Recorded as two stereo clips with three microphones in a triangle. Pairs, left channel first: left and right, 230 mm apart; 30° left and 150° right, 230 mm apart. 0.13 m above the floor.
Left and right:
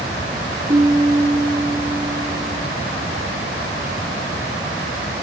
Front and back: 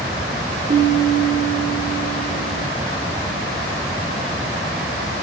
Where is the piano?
160° right, 1.9 m.